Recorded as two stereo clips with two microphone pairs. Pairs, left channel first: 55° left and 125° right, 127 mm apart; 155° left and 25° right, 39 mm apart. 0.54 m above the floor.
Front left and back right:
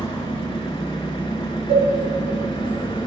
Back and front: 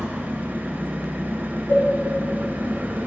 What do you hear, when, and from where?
0.0 s an engine running: 5° left, 1.3 m
1.7 s a cowbell: 165° right, 1.5 m